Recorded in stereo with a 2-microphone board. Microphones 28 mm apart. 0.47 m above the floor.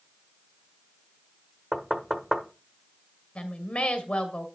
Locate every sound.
1.7 s knocking: 10° right (ahead or behind), 1.2 m
3.4 s a woman speaking: 40° left (ahead or behind), 2.0 m